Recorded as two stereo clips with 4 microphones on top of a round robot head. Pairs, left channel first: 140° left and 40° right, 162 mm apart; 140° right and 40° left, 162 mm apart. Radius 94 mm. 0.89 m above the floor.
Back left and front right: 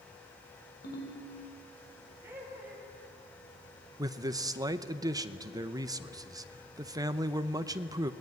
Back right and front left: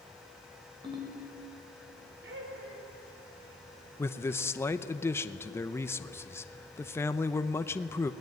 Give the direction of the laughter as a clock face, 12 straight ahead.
11 o'clock.